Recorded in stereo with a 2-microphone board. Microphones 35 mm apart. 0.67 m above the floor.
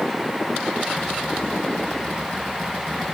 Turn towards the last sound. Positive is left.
No sound to turn to.